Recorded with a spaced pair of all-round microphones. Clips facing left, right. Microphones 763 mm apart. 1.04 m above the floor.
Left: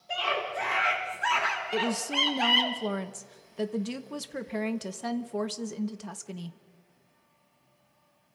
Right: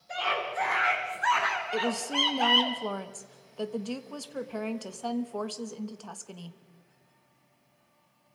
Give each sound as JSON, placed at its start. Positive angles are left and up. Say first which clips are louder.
{"t": 0.1, "sound": "a scream", "louder": "left 1 dB", "side_deg": 60, "distance_m": 3.5}
{"t": 1.7, "sound": "a woman speaking", "louder": "left 1 dB", "side_deg": 55, "distance_m": 1.2}